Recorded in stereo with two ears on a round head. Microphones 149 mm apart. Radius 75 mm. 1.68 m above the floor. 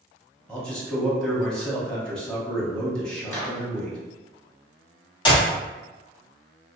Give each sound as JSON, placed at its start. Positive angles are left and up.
{"t": 0.5, "sound": "a man speaking", "side_deg": 5, "distance_m": 1.0}
{"t": 3.3, "sound": "a microwave", "side_deg": 15, "distance_m": 1.2}
{"t": 5.2, "sound": "a clap", "side_deg": 30, "distance_m": 1.8}